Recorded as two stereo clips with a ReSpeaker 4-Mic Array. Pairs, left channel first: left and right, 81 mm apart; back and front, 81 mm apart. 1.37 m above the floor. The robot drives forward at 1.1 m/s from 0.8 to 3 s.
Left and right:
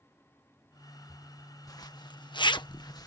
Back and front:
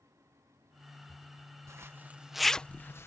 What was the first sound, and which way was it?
A zipper, 50° left.